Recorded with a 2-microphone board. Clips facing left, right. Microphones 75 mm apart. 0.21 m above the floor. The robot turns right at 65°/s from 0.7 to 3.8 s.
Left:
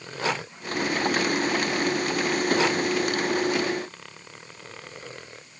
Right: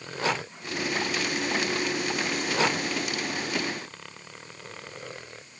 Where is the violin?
No violin in this recording.